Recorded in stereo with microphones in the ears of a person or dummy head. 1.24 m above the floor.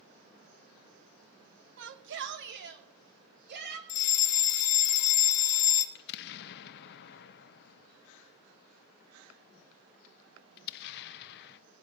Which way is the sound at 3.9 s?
55° left (ahead or behind).